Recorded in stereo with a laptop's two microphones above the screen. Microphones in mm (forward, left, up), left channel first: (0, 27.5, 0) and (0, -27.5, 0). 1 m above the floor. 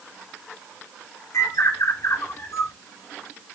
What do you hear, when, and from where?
1.3 s a bird: 70° left (ahead or behind), 1.4 m